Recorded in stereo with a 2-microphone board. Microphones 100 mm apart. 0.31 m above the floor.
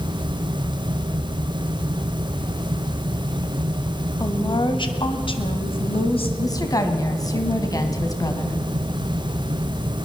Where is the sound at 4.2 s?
40° left (ahead or behind), 1.7 m; by 6.3 s 65° left (ahead or behind), 3 m.